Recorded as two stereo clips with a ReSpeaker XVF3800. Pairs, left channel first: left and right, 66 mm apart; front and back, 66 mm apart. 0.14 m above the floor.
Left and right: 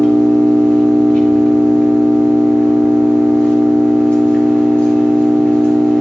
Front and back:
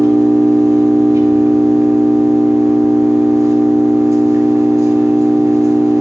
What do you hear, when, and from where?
0.0 s an engine running: 155° left, 2 m